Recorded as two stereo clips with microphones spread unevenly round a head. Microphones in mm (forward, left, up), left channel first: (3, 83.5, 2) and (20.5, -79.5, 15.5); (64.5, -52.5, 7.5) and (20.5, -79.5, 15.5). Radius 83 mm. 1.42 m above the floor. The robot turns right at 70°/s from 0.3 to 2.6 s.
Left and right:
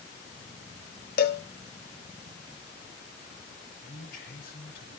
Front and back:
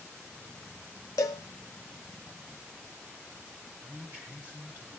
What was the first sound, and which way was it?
A cowbell, 65° left.